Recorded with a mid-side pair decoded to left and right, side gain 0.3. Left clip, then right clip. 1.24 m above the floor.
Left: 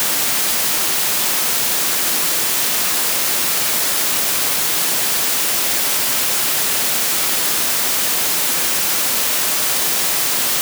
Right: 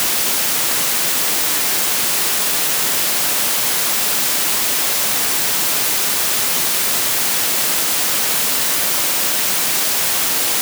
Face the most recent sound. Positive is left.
No sound to turn to.